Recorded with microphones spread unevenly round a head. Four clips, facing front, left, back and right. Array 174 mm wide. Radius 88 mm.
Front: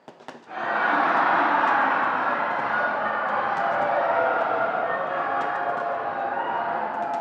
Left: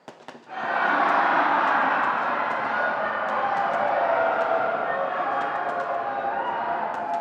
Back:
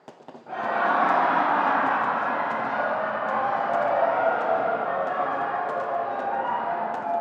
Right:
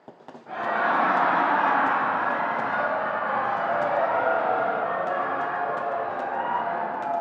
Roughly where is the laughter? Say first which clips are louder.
Even, even; behind right.